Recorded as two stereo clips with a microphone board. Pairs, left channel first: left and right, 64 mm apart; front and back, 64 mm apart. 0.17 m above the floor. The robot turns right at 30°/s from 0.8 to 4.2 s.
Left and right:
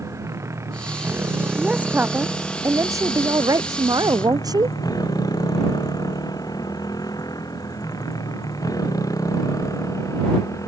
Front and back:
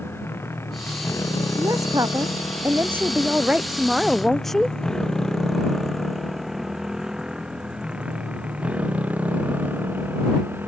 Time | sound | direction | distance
0.0 | a motorcycle | 55° right | ?
1.6 | a woman speaking | 165° right | ?